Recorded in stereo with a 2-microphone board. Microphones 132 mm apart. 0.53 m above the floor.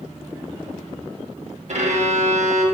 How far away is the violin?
About 0.6 m.